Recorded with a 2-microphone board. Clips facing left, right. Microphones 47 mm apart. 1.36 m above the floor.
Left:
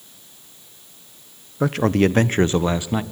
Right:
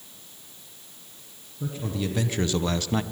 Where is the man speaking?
70° left (ahead or behind), 0.8 m; by 3.0 s 10° left (ahead or behind), 0.7 m.